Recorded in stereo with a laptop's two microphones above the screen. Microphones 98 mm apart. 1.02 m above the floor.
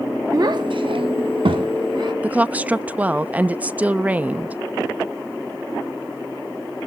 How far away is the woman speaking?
About 0.8 m.